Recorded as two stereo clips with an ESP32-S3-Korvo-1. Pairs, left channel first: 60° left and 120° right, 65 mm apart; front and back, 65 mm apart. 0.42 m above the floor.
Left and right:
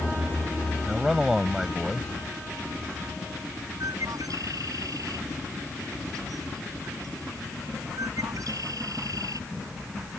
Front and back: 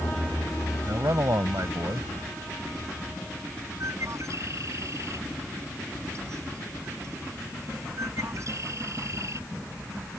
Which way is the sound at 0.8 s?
155° left.